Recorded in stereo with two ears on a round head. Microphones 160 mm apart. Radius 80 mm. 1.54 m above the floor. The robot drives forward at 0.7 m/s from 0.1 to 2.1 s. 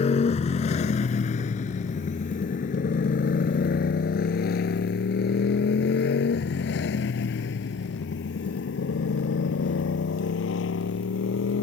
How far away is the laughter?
I don't hear laughter.